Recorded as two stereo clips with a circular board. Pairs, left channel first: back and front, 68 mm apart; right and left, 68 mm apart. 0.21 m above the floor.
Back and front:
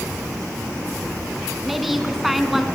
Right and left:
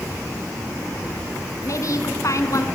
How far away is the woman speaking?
About 2.5 m.